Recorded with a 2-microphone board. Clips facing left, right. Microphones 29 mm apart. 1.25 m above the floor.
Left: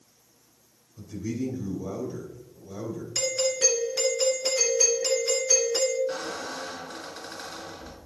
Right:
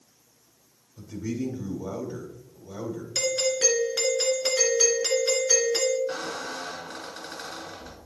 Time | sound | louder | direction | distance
1.0 | a man speaking | even | 40° right (ahead or behind) | 2.5 m
3.1 | a doorbell | right 1 dB | 60° right (ahead or behind) | 1.9 m
6.1 | a squeak | even | 15° right (ahead or behind) | 2.0 m